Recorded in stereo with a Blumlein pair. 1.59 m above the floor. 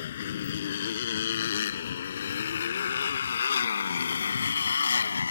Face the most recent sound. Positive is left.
turn(degrees=75)